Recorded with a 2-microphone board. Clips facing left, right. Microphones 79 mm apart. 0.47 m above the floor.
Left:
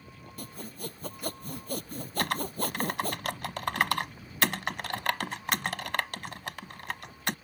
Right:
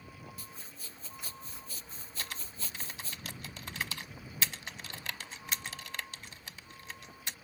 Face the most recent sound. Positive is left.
turn(degrees=65)  # may be behind; listen again after turning